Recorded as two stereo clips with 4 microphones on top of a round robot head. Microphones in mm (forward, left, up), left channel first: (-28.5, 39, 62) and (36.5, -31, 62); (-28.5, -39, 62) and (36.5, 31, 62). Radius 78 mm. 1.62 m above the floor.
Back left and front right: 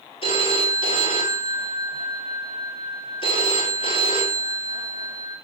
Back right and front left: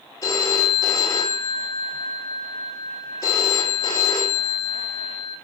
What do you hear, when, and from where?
0.2 s a phone ringing: 165° left, 3.5 m